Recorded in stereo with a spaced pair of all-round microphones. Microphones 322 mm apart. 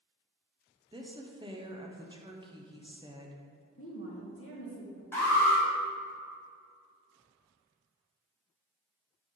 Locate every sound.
0.9 s a woman speaking: 15° right (ahead or behind), 0.8 m
3.8 s a woman speaking: 45° left (ahead or behind), 1.6 m
5.1 s an alarm: 5° left (ahead or behind), 2 m